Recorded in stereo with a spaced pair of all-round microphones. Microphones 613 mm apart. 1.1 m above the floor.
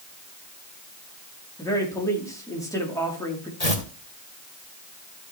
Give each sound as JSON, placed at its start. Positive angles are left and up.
{"t": 1.6, "sound": "a man speaking", "side_deg": 5, "distance_m": 3.0}
{"t": 3.6, "sound": "tearing paper", "side_deg": 80, "distance_m": 2.0}